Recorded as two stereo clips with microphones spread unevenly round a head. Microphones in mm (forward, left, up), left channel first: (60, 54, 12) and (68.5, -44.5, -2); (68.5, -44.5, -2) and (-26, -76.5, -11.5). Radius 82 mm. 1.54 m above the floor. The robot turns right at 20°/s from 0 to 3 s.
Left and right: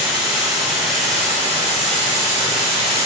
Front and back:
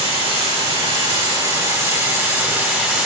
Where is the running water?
140° right, 3 m; by 3.1 s 80° right, 3 m.